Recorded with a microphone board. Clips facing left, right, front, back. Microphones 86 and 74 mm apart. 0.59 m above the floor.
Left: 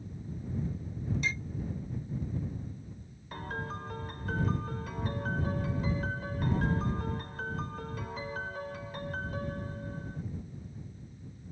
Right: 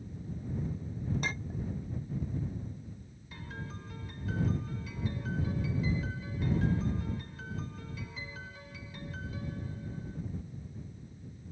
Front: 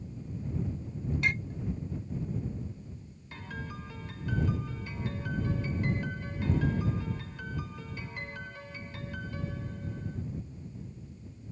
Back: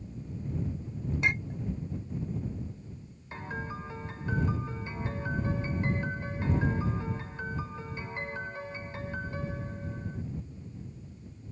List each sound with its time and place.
1.2 s a clink: 115° right
3.3 s a piano: 120° left